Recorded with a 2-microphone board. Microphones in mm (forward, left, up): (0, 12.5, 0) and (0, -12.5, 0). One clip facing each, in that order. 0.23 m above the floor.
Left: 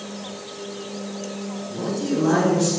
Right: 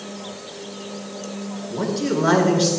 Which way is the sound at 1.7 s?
50° right (ahead or behind).